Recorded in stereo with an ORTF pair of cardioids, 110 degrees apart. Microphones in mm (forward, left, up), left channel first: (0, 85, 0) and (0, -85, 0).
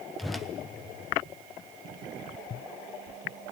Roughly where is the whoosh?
Ahead.